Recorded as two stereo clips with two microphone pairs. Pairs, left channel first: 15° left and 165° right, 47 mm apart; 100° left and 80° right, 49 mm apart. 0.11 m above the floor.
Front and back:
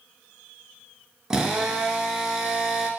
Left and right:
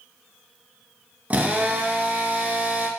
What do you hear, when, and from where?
1.3 s a drill: 105° right, 0.5 m